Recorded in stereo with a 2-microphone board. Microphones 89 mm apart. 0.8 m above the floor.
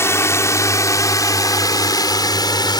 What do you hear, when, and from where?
0.0 s a drone: 30° left (ahead or behind); by 2.8 s 55° left (ahead or behind)